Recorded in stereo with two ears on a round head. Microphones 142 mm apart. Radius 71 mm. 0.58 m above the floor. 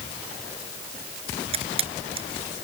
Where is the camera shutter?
40° right (ahead or behind).